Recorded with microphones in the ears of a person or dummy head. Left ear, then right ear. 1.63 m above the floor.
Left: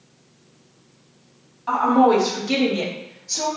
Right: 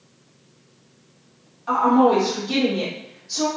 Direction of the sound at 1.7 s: 10° left (ahead or behind).